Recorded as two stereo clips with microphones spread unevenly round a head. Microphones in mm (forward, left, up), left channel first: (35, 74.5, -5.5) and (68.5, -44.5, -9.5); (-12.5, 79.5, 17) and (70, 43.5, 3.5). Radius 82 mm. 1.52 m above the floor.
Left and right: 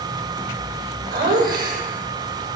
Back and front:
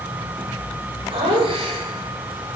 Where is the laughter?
85° right, 8 m; by 2.6 s 80° right, 6 m.